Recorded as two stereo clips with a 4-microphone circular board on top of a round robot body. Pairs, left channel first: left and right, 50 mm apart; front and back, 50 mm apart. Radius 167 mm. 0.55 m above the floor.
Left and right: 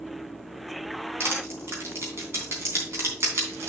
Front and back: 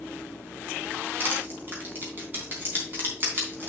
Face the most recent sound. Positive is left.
turn(degrees=-130)